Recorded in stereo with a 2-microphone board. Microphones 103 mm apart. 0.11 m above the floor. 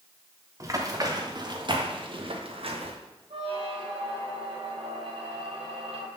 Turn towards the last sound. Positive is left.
turn(degrees=-60)  # may be behind; listen again after turning